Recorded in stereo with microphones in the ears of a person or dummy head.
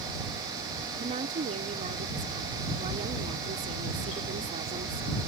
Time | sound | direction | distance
1.0 | a woman speaking | 30° right (ahead or behind) | ?